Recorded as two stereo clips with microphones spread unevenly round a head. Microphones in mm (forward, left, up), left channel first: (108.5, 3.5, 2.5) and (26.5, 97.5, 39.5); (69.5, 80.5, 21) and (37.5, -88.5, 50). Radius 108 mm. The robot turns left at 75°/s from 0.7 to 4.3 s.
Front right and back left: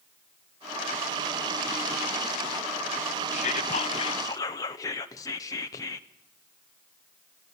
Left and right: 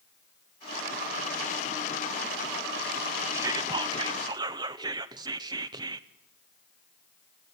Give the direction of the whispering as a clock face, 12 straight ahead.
2 o'clock.